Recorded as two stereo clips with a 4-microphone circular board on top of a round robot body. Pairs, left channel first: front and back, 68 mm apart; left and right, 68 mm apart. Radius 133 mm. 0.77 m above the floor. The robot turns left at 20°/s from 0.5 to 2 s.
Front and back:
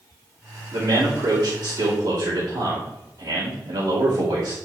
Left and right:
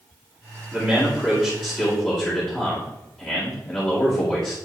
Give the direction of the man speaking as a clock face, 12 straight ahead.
6 o'clock.